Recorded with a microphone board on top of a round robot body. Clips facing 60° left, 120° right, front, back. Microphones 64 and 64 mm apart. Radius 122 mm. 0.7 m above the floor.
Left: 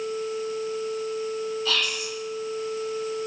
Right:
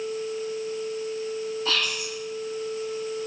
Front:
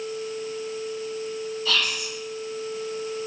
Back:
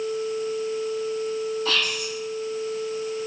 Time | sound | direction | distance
1.6 | whispering | 155° right | 1.2 m